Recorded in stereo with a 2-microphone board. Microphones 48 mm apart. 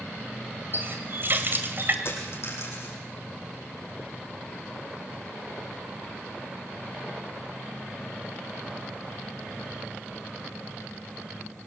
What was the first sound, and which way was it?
A running tap, 45° right (ahead or behind).